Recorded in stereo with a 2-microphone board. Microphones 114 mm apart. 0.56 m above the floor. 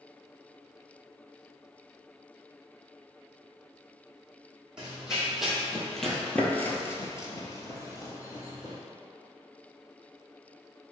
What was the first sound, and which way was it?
Running footsteps, 5° right (ahead or behind).